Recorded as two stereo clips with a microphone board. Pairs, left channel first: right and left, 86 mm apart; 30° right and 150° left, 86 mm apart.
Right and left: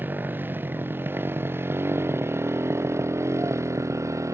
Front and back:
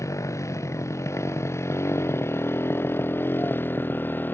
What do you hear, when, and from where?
0.0 s a motorcycle: 25° left; by 4.3 s 35° left